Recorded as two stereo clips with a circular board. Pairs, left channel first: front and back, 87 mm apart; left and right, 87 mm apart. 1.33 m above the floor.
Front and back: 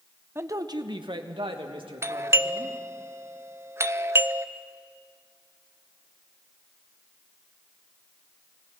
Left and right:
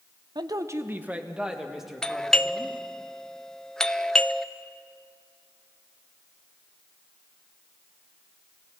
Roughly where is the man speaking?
Behind right.